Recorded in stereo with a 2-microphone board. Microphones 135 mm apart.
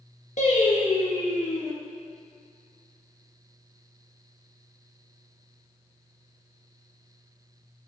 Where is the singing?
65° left (ahead or behind), 1.4 m.